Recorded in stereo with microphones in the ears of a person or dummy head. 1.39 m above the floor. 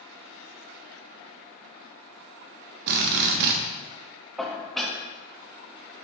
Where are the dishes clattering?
Centre (ahead or behind), 1.3 m.